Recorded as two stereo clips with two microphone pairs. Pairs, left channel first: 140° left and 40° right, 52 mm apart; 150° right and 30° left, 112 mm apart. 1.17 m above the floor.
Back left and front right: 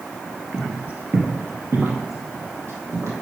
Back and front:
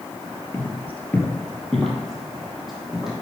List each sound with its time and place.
0.5 s footsteps: 95° right, 1.4 m; by 3.2 s 55° right, 3 m